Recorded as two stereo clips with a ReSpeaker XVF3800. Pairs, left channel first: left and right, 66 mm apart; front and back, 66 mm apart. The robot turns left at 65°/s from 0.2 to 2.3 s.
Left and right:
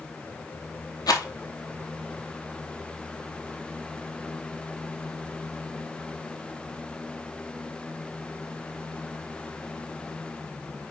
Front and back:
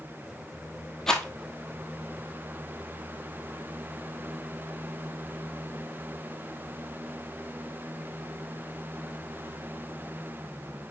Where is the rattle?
85° left, 1.2 m; by 1.3 s 70° left, 1.2 m.